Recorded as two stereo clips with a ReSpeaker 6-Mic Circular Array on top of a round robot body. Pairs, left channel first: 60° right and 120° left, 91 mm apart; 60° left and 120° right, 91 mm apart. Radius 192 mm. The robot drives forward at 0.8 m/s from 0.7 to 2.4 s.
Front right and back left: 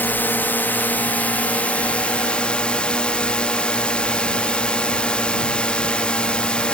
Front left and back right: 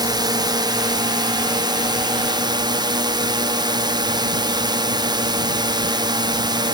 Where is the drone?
125° right; by 6.7 s 135° right.